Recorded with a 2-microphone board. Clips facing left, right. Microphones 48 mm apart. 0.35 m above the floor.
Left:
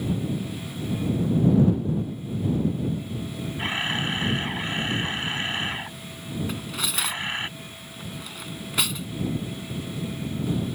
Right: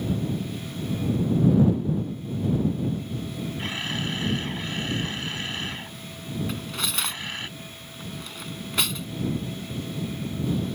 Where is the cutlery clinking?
5° left (ahead or behind).